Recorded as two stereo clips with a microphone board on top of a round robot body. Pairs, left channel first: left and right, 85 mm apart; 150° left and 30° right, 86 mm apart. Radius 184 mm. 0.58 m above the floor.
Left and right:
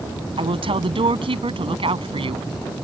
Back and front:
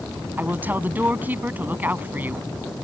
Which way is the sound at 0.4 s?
100° right.